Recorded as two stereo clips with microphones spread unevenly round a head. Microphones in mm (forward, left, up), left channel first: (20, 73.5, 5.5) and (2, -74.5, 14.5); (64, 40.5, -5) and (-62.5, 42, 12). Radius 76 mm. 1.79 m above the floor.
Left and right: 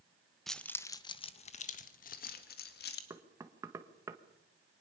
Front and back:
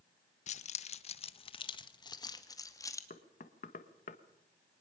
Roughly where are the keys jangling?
Ahead.